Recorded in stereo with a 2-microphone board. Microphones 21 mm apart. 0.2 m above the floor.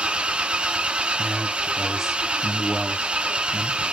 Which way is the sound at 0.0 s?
60° right (ahead or behind).